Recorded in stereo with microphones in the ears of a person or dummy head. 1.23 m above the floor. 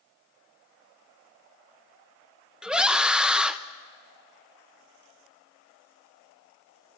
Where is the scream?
5° right (ahead or behind), 0.9 m.